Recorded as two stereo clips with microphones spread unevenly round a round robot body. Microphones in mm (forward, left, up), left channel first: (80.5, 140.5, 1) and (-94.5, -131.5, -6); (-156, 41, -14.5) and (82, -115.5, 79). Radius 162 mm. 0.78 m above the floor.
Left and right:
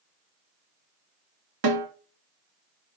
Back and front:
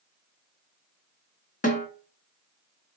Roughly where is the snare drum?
Behind right.